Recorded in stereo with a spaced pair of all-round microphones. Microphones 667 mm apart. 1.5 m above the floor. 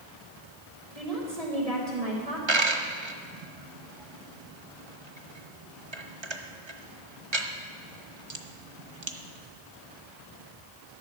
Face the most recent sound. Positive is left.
turn(degrees=-40)  # may be behind; listen again after turning